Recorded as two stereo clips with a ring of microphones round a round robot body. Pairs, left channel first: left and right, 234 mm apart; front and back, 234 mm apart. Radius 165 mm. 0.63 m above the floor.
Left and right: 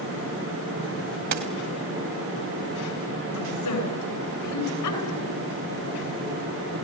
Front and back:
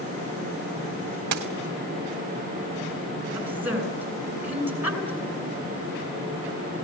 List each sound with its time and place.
1.3 s a dropped coin: 140° right, 1.3 m
3.4 s a woman speaking: 95° left, 9 m